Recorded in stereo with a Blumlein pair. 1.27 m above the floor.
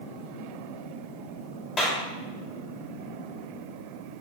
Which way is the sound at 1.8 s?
20° left.